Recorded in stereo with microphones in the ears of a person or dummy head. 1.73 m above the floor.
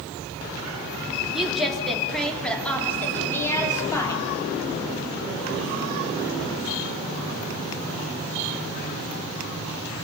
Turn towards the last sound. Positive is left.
turn(degrees=20)  # may be behind; listen again after turning